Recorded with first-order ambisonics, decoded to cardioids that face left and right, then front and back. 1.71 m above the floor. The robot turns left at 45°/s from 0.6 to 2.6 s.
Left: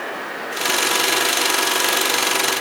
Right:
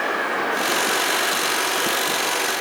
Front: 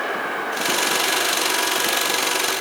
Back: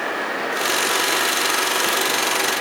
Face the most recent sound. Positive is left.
No sound to turn to.